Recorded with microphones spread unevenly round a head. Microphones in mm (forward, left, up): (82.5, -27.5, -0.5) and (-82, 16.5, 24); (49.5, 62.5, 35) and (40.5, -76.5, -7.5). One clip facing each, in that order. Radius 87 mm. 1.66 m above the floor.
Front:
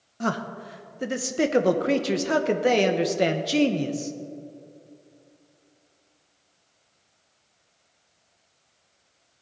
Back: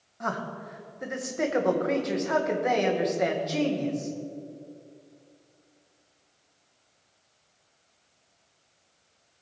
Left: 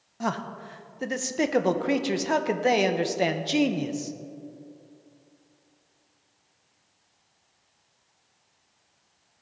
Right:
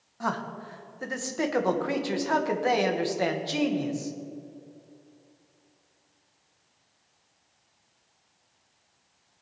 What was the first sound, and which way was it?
A man speaking, 35° left.